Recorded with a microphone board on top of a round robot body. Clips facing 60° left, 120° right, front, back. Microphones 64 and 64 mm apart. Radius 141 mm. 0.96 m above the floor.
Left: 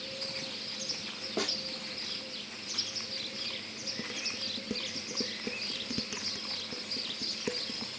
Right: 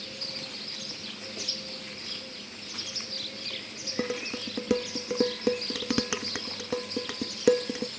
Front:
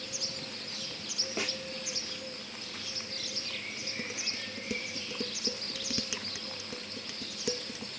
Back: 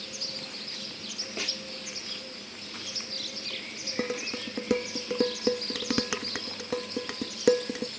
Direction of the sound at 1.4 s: 85° left.